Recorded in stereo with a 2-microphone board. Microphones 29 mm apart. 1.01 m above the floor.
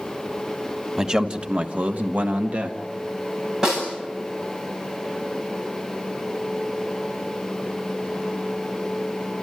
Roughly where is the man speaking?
Right.